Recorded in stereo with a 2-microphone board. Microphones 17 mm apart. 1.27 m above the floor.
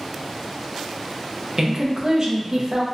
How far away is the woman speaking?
About 0.5 m.